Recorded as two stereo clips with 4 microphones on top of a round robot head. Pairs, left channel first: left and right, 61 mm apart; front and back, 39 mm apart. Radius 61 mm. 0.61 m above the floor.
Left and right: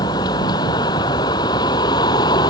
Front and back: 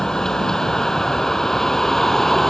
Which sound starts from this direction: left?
A vehicle, at 0.0 s.